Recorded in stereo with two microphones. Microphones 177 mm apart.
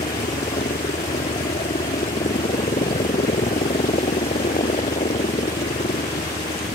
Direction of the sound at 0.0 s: 45° left (ahead or behind).